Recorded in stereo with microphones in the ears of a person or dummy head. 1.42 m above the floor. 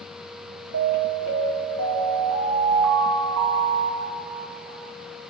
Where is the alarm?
60° right (ahead or behind), 1.9 m.